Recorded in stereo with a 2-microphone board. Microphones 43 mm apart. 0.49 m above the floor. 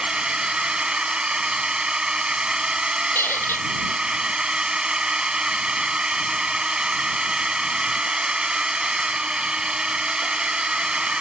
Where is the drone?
20° right (ahead or behind).